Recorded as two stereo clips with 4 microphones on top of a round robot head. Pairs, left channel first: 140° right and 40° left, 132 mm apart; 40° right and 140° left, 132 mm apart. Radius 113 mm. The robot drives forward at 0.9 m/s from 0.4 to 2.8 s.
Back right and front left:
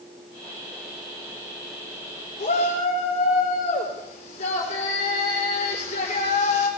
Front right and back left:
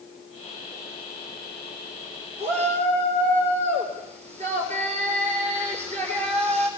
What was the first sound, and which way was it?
A shout, straight behind.